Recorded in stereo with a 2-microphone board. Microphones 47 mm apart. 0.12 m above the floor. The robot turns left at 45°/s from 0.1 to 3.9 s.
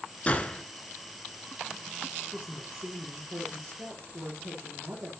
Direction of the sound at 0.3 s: 30° left (ahead or behind).